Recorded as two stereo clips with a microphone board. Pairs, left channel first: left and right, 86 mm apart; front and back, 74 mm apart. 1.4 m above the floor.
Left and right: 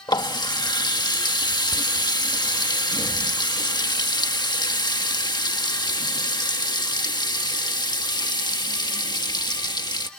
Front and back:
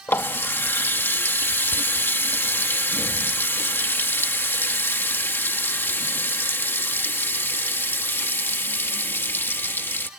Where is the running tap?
60° left.